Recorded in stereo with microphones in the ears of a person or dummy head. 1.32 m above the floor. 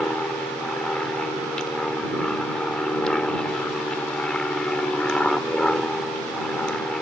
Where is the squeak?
No squeak in this recording.